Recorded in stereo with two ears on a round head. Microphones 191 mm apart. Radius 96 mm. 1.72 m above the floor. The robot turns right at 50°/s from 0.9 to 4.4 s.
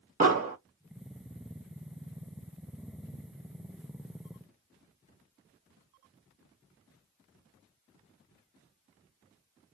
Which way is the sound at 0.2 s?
35° right (ahead or behind).